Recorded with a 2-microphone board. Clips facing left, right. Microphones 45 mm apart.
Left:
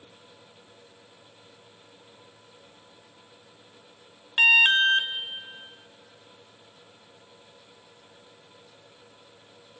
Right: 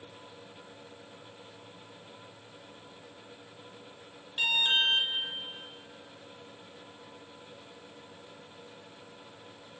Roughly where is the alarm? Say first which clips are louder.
Left 9 dB; left.